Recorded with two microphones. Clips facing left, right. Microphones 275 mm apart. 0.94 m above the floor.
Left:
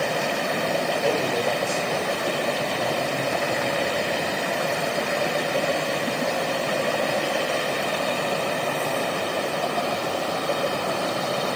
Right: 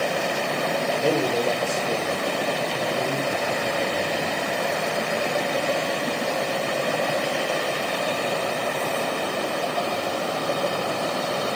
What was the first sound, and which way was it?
A man speaking, 30° right (ahead or behind).